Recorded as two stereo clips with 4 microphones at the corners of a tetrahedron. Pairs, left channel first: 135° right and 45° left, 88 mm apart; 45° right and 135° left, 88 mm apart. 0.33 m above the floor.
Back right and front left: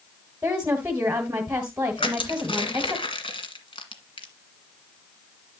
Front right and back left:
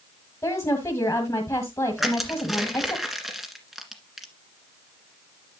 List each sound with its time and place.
0.4 s a woman speaking: 20° right, 1.5 m
2.0 s crushing: 135° right, 1.8 m